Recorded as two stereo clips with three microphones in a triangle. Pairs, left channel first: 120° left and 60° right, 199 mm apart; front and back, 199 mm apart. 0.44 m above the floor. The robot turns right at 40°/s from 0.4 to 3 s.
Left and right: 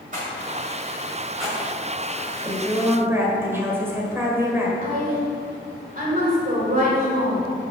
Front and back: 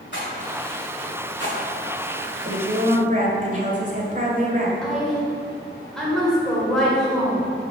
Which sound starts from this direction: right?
A woman speaking, at 4.8 s.